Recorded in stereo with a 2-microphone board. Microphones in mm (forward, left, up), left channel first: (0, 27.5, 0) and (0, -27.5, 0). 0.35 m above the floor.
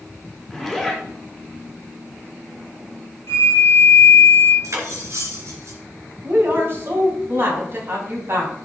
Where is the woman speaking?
45° right (ahead or behind), 3 m.